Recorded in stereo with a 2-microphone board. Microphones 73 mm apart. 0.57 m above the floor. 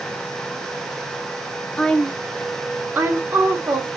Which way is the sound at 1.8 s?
20° left (ahead or behind).